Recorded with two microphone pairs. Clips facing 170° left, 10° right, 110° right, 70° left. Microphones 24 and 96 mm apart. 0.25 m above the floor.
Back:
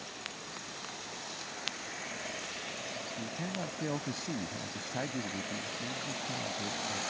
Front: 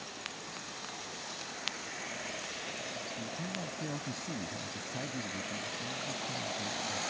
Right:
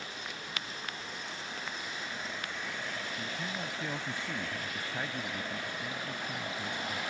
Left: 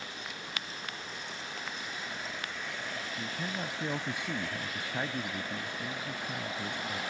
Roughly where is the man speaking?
Behind left.